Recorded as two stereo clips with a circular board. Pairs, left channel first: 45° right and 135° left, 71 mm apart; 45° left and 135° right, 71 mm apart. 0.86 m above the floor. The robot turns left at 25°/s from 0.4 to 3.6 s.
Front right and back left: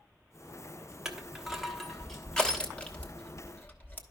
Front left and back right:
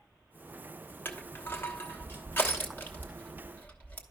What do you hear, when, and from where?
1.1 s crushing: 60° left, 1.1 m; by 4.0 s 5° right, 1.1 m